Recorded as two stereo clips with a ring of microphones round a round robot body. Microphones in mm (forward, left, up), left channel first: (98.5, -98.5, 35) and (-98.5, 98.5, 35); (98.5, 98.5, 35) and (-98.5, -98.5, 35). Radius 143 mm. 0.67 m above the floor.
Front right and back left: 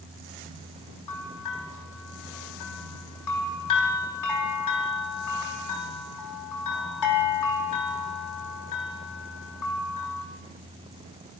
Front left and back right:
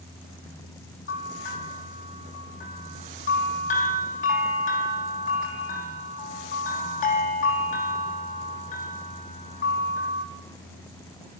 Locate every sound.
1.1 s a bell: 20° right, 4.5 m